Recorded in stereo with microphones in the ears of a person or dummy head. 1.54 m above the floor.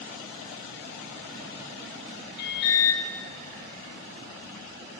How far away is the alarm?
About 1.5 m.